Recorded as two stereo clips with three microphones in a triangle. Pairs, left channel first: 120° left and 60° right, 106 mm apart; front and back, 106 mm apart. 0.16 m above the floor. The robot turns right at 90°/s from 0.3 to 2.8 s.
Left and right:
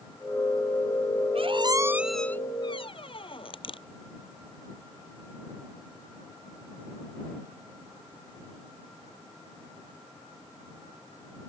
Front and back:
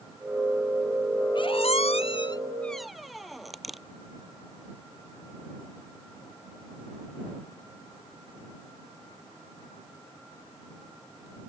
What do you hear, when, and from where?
1.4 s a squeak: 40° right; by 3.8 s 90° left